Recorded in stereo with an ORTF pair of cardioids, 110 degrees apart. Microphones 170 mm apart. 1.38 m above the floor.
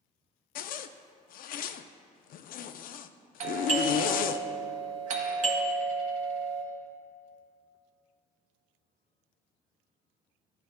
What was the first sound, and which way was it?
A zipper, 60° left.